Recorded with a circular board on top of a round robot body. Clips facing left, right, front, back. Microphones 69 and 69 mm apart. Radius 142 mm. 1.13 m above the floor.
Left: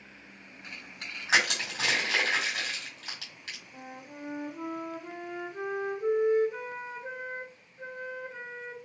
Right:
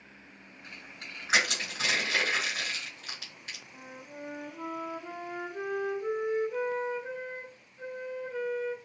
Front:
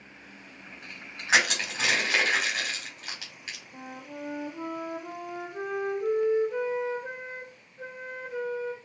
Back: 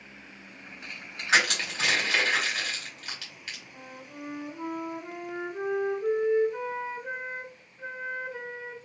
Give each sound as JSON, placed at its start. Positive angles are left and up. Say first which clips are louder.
{"t": 1.3, "sound": "crushing", "louder": "left 2 dB, even", "azimuth_deg": 75, "distance_m": 2.0}
{"t": 3.7, "sound": "a flute", "louder": "left 2 dB, front 3 dB", "azimuth_deg": 20, "distance_m": 1.6}